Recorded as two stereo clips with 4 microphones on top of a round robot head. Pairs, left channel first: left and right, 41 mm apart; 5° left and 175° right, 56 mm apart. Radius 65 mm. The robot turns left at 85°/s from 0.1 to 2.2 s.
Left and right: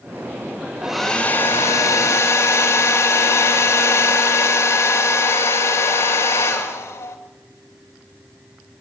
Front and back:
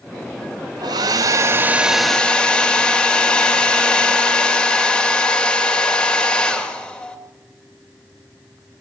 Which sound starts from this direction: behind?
A hair dryer, at 0.8 s.